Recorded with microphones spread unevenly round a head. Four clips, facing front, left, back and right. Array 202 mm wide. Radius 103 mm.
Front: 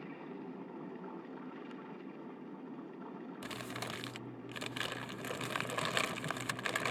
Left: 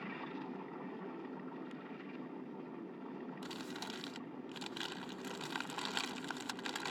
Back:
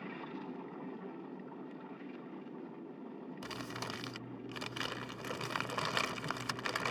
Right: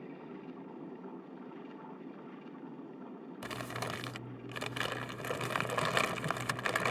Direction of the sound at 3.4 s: 75° right.